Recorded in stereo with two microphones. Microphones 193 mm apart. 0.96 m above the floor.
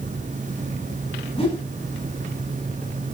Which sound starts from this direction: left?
A whoosh, at 1.4 s.